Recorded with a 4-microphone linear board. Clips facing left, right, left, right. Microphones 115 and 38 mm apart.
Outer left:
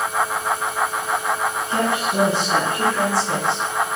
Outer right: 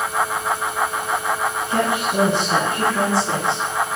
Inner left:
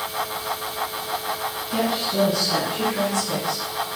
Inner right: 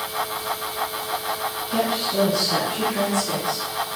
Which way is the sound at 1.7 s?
5° right (ahead or behind).